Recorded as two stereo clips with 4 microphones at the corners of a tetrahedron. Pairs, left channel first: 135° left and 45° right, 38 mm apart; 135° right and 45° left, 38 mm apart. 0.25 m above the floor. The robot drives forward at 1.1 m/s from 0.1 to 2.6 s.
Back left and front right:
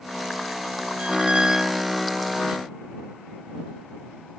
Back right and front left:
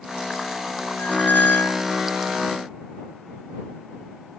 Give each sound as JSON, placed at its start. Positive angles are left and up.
{"t": 1.0, "sound": "a squeak", "azimuth_deg": -95}